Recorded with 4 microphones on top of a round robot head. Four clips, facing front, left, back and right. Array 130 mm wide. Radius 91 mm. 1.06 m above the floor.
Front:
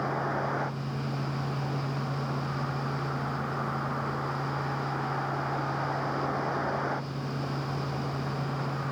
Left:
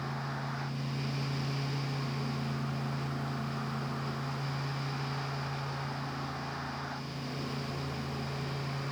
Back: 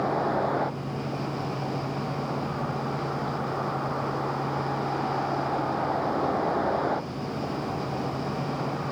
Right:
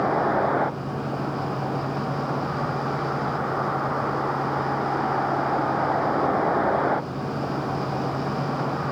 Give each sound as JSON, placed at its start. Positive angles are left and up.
{"t": 0.0, "sound": "a vehicle", "azimuth_deg": -110}